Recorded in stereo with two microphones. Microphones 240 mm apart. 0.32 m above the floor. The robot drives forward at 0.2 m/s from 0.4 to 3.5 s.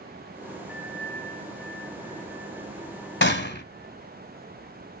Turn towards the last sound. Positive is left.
turn(degrees=45)  # may be behind; listen again after turning